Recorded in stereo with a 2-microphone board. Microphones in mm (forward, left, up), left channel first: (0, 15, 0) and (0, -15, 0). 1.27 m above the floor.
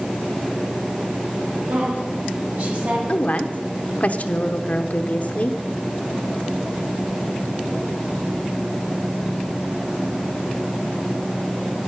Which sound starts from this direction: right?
A woman speaking, at 1.7 s.